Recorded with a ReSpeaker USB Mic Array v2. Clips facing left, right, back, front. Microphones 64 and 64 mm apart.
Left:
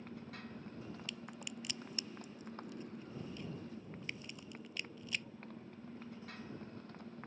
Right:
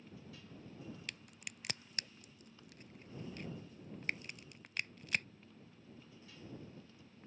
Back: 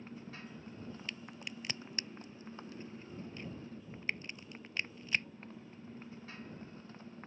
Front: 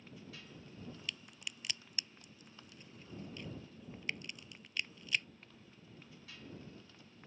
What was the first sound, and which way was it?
A motorcycle, 125° left.